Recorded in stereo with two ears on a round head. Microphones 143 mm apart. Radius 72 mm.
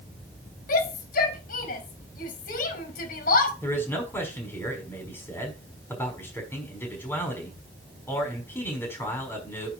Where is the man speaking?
15° left (ahead or behind), 5.5 m.